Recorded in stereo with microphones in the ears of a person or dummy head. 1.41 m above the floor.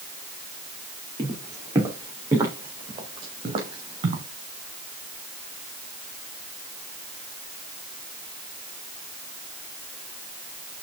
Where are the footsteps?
10° right (ahead or behind), 4.5 m; by 4.2 s 35° right (ahead or behind), 3.5 m.